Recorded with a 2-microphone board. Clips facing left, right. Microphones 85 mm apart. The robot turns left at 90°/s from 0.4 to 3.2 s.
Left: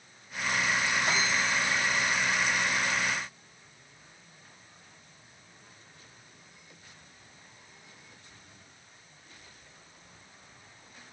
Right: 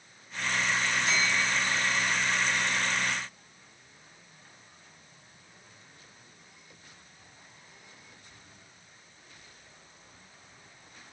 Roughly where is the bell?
Behind left.